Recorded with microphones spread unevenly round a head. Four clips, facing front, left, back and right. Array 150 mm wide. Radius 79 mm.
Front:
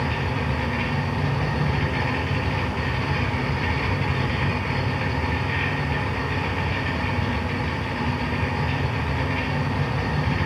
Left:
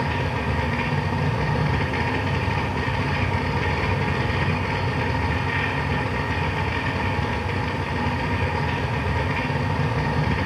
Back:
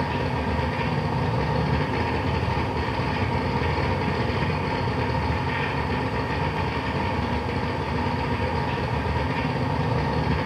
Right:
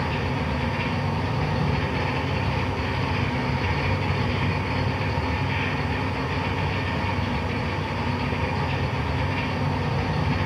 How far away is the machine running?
About 1.7 m.